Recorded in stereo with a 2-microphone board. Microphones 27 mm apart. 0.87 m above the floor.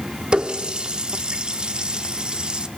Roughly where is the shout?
No shout in this recording.